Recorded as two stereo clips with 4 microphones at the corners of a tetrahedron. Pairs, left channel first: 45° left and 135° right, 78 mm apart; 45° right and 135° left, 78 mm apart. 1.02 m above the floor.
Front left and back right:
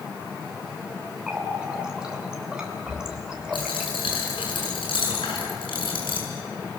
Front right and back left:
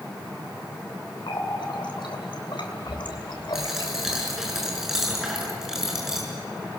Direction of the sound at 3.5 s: 50° left.